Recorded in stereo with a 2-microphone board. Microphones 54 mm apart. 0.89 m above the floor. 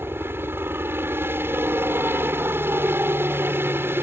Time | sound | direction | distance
0.0 | a helicopter | 40° right (ahead or behind) | ?